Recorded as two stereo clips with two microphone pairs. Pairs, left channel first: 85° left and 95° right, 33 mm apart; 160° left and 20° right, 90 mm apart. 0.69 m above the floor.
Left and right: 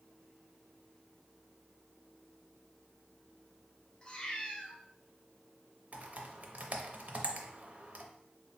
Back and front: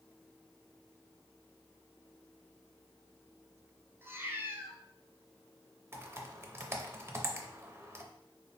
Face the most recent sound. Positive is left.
turn(degrees=-75)